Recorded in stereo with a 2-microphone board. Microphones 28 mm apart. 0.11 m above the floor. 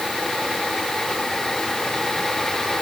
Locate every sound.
Only background noise.